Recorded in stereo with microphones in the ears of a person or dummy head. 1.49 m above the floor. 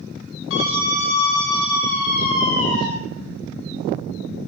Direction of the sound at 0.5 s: 70° left (ahead or behind).